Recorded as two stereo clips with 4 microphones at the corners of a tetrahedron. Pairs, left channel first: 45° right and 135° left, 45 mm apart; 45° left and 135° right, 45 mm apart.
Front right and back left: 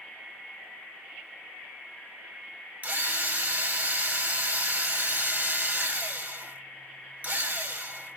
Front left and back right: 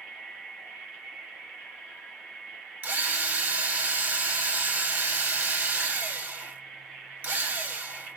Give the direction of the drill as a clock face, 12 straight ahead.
6 o'clock.